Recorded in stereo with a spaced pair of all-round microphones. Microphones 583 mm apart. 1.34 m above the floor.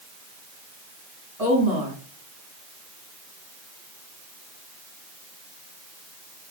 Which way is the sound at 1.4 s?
85° right.